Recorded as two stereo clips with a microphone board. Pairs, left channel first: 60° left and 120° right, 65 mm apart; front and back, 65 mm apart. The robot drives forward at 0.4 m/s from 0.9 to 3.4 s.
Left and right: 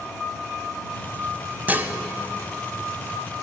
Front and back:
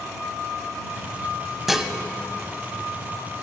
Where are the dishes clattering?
95° right, 0.7 m; by 1.9 s 110° right, 0.7 m.